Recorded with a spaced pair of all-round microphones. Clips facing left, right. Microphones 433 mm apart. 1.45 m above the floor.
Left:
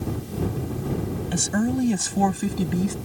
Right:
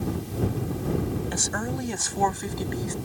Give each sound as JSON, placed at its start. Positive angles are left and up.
{"t": 1.3, "sound": "a woman speaking", "side_deg": 45}